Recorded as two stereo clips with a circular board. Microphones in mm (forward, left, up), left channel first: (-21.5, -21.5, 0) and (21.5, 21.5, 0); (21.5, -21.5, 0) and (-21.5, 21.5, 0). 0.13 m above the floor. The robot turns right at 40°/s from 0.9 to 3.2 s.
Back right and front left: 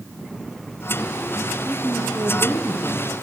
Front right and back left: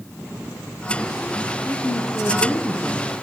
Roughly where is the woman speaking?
Ahead right.